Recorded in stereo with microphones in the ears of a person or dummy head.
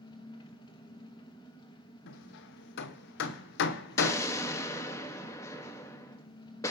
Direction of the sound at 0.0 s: 20° left (ahead or behind).